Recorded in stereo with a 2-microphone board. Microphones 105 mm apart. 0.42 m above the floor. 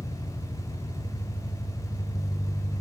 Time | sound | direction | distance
0.0 | an engine running | 35° left (ahead or behind) | 5 m